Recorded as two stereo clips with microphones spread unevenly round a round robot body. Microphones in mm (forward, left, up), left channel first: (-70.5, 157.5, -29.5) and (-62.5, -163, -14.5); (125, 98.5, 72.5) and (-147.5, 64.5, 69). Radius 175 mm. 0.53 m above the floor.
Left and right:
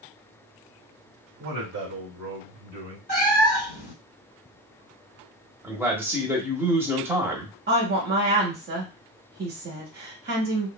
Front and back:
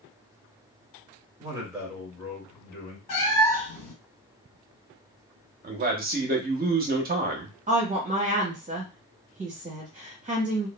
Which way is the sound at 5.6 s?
170° right.